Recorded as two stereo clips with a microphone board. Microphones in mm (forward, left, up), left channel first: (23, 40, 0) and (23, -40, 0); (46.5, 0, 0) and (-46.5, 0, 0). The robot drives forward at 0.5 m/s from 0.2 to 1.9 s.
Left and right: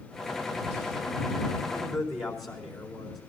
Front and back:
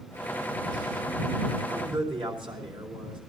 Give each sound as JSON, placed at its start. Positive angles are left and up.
{"t": 1.7, "sound": "a man speaking", "azimuth_deg": 180, "distance_m": 3.5}